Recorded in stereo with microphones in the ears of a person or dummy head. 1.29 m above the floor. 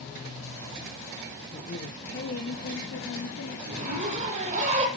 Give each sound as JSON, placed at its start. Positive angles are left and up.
{"t": 1.5, "sound": "a woman speaking", "side_deg": 35, "distance_m": 1.1}
{"t": 3.7, "sound": "a zipper", "side_deg": -40, "distance_m": 8.5}